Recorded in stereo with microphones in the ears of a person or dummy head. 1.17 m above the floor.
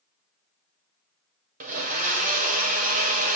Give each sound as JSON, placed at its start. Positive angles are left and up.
{"t": 1.6, "sound": "a blender", "side_deg": -45, "distance_m": 1.4}